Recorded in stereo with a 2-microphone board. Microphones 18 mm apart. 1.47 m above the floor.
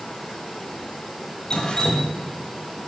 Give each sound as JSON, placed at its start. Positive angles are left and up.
{"t": 1.5, "sound": "dripping", "side_deg": 50, "distance_m": 1.3}